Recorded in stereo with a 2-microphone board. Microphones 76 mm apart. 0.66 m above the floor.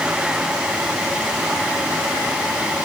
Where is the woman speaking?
I don't hear a woman speaking.